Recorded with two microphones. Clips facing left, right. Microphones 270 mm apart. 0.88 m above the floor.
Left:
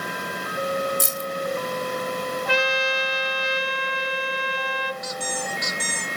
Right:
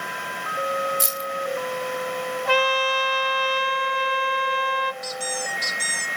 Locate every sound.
1.0 s keys jangling: 60° left (ahead or behind), 0.8 m
2.5 s a trumpet: 60° right (ahead or behind), 1.7 m
5.0 s a squeak: 35° right (ahead or behind), 1.5 m